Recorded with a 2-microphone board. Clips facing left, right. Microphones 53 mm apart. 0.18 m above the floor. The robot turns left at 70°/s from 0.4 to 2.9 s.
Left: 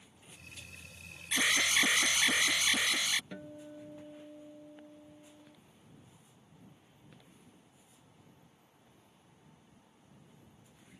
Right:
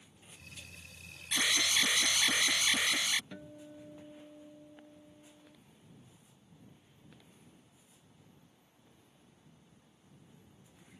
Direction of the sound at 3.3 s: 15° left (ahead or behind).